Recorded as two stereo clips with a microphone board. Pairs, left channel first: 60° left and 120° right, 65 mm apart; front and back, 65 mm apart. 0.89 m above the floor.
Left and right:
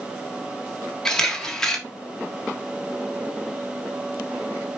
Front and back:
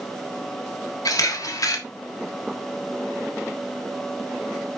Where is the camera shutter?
20° right, 1.5 m.